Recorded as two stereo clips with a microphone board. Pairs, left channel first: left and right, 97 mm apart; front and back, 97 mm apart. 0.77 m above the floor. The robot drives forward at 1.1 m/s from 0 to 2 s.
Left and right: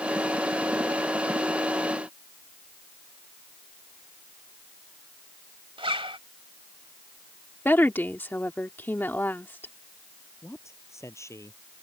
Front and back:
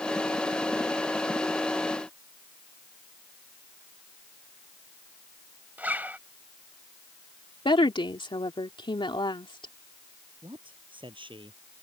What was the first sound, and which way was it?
A zipper, 110° right.